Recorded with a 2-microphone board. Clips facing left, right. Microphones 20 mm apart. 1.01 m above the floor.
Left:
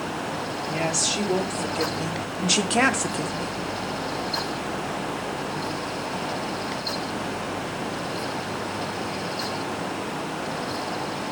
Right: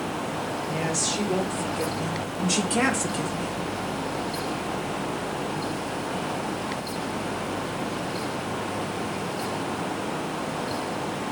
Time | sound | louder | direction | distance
0.7 | a woman speaking | left 4 dB | 65° left (ahead or behind) | 2 m